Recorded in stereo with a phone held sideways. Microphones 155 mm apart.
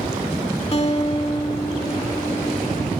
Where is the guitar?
40° left (ahead or behind), 2 m.